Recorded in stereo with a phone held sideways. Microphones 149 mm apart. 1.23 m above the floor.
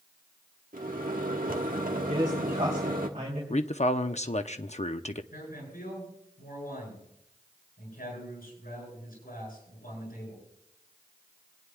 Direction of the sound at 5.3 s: 75° left (ahead or behind).